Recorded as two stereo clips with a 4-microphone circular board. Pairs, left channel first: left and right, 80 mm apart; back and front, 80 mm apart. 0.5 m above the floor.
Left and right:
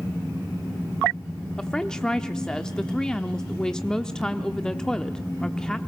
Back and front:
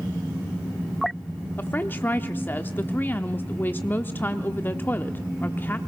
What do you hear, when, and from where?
1.6 s a woman speaking: 160° left, 0.8 m